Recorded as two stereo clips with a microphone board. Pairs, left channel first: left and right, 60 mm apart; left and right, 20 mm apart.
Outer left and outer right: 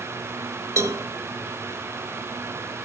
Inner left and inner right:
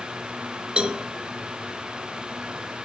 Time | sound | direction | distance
0.8 | a cowbell | 55° right (ahead or behind) | 1.2 m